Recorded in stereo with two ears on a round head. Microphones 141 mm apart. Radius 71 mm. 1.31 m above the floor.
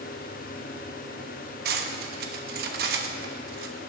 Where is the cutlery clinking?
65° right (ahead or behind), 1.0 m.